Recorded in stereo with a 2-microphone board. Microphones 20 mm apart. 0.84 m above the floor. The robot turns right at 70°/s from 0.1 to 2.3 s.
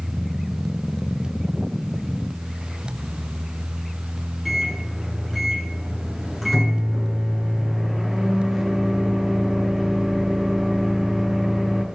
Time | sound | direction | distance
4.5 | a microwave | 10° left (ahead or behind) | 9.5 m